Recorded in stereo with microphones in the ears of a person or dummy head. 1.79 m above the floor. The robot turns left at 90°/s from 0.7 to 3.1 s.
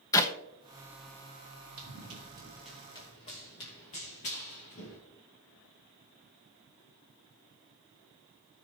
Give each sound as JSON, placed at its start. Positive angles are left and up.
{"t": 0.1, "sound": "a clap", "side_deg": 15, "distance_m": 1.1}
{"t": 1.8, "sound": "running footsteps", "side_deg": -60, "distance_m": 3.5}